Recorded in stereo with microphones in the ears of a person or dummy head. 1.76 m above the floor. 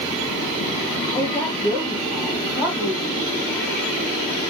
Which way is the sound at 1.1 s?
15° left (ahead or behind).